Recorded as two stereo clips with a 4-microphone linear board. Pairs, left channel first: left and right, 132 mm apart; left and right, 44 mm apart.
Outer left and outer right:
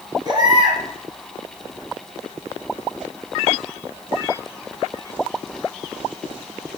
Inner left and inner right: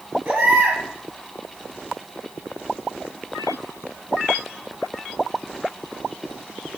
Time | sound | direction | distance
0.2 | a baby crying | 35° right (ahead or behind) | 3.5 m